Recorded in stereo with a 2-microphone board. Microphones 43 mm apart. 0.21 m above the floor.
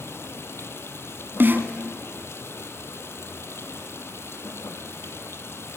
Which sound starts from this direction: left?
Running water, at 0.0 s.